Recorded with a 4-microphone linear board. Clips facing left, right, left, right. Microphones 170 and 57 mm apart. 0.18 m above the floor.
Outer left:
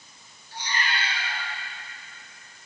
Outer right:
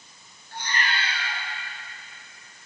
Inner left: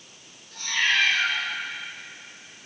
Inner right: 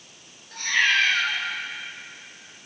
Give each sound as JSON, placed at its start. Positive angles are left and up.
{"t": 0.5, "sound": "a cat meowing", "side_deg": -55, "distance_m": 1.6}